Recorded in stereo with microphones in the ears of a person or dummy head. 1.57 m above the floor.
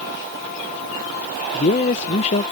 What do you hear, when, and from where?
1.5 s a man speaking: 40° left (ahead or behind)